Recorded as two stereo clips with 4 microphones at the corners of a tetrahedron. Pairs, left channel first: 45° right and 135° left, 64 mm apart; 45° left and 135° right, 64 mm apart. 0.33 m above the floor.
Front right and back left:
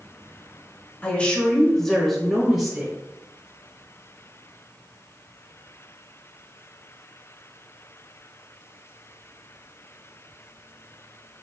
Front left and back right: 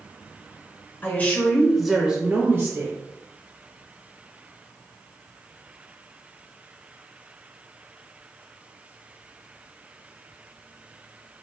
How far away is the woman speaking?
About 1.0 m.